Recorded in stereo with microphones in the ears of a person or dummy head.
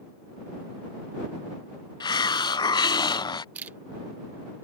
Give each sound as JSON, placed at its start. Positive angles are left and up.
{"t": 2.0, "sound": "a hiss", "side_deg": 20}
{"t": 3.5, "sound": "a camera shutter", "side_deg": -10}